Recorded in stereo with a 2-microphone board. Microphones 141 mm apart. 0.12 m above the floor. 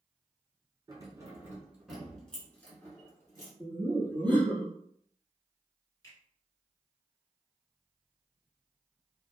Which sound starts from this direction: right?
Keys jangling, at 0.9 s.